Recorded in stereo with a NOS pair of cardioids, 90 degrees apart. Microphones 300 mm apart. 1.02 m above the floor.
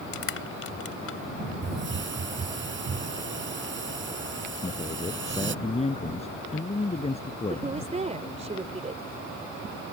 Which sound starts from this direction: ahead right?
A hiss, at 1.6 s.